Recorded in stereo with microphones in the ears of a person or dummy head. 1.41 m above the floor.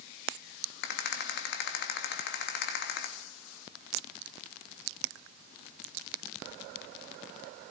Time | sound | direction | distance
0.8 | a rattle | 65° left (ahead or behind) | 2 m